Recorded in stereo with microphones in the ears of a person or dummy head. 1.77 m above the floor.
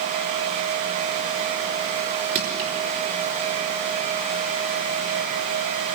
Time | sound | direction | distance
2.4 | crushing | 40° right (ahead or behind) | 3.5 m